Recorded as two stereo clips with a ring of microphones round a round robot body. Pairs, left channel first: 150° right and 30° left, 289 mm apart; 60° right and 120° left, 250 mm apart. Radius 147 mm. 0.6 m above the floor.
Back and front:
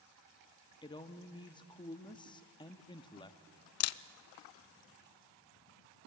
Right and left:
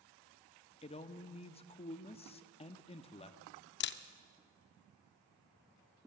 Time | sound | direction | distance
0.8 | a man speaking | 95° right | 0.9 m
3.8 | a camera shutter | 110° right | 0.5 m